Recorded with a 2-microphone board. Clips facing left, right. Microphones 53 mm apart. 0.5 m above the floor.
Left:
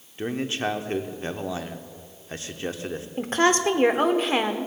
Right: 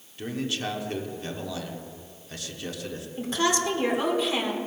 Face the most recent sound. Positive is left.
turn(degrees=45)  # may be behind; listen again after turning